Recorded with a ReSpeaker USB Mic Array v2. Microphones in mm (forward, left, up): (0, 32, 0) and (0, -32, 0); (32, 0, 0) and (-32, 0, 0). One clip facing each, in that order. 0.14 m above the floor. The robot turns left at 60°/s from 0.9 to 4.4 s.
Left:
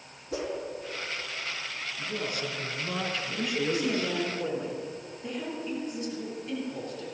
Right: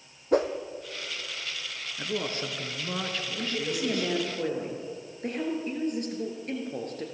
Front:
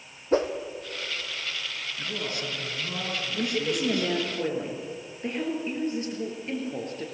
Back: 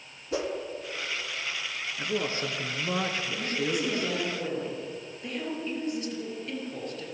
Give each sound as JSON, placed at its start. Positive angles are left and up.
{"t": 0.3, "sound": "a whoosh", "azimuth_deg": -50, "distance_m": 1.5}
{"t": 2.0, "sound": "a man speaking", "azimuth_deg": -115, "distance_m": 1.7}
{"t": 3.3, "sound": "a woman speaking", "azimuth_deg": 5, "distance_m": 3.5}